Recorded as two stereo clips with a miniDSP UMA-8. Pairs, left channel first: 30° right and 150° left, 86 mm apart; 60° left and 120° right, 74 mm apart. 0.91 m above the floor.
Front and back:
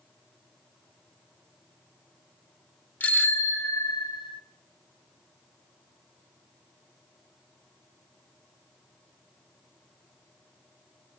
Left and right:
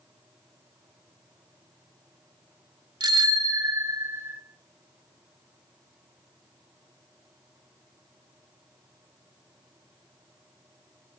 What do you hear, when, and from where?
3.0 s a bicycle bell: 100° right, 2 m; by 4.4 s 50° right, 1.2 m